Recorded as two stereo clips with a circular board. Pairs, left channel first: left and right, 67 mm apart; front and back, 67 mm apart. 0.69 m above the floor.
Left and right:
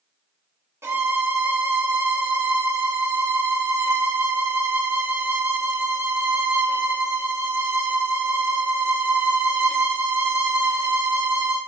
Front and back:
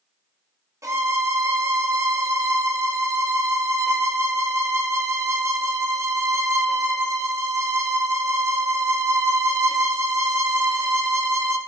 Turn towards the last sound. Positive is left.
turn(degrees=-140)